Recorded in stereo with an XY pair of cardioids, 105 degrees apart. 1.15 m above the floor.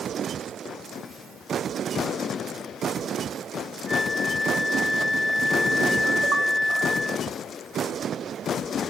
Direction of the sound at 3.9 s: 5° right.